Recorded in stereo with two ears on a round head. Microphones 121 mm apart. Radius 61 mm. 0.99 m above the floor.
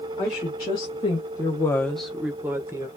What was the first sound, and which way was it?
A woman speaking, 40° left (ahead or behind).